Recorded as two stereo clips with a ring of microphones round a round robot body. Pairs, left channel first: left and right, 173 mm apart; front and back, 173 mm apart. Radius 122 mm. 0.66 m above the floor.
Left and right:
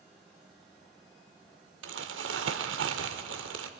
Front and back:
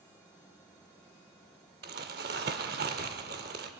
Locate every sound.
1.8 s crumpling: 130° right, 1.0 m